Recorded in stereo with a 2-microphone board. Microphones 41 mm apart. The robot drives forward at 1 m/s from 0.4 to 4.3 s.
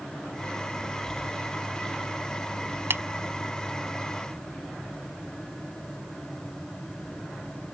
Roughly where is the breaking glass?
I don't hear breaking glass.